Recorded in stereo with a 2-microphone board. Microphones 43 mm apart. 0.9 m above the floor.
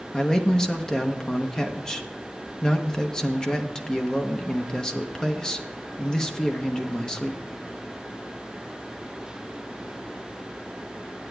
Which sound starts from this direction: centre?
A man speaking, at 0.1 s.